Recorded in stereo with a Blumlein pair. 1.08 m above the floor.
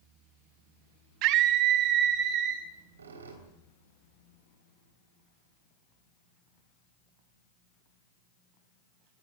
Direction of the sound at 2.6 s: 70° right.